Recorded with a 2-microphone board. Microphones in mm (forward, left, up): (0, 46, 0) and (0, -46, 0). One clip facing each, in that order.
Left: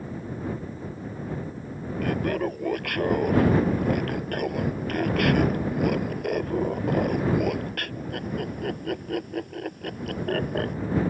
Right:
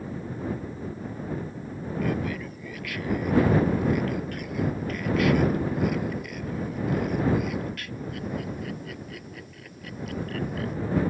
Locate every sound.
2.0 s laughter: 55° left (ahead or behind)